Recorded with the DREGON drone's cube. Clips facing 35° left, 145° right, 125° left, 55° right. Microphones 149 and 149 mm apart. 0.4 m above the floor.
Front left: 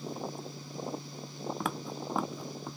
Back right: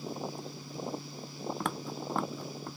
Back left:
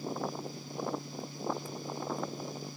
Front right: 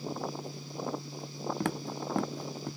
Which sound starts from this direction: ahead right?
Footsteps, at 1.6 s.